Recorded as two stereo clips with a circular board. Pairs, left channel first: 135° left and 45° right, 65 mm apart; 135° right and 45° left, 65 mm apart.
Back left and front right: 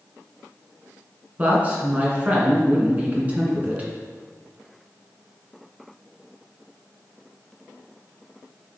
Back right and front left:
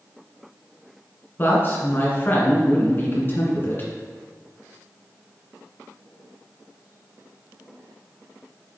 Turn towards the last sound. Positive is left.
turn(degrees=-100)